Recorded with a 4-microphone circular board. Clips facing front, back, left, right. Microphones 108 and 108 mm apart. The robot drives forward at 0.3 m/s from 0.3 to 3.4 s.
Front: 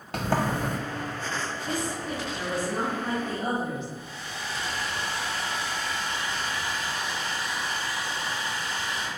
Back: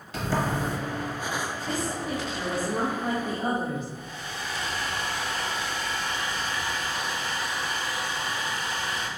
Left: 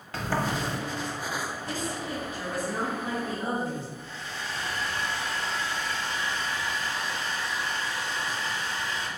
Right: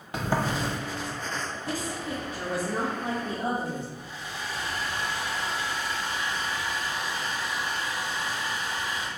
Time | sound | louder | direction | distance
0.1 | a sliding door | front 1 dB, right 1 dB | 20° right | 0.6 m
1.7 | a woman speaking | back 1 dB, right 1 dB | 95° right | 0.9 m
4.0 | a hair dryer | back 1 dB, even | 165° right | 0.7 m